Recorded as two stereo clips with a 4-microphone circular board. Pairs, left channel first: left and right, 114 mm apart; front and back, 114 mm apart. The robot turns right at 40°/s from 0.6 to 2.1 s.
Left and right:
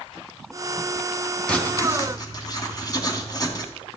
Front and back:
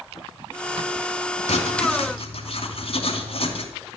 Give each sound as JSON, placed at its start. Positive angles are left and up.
{"t": 1.5, "sound": "writing", "azimuth_deg": 10, "distance_m": 2.5}